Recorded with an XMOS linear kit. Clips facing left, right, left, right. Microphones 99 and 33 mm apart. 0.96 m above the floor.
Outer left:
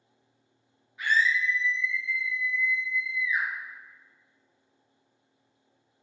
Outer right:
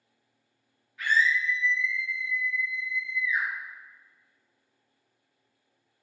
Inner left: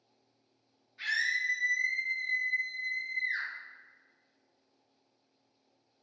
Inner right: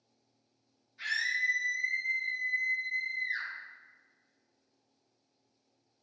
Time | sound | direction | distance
1.0 | a scream | 20° left (ahead or behind) | 1.4 m